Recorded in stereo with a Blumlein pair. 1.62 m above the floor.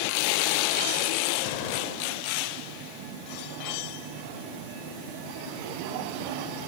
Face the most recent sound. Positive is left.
turn(degrees=45)